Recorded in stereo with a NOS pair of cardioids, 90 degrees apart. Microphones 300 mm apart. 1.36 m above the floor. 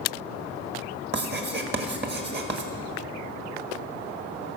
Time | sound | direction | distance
1.1 | writing | 35° right | 1.6 m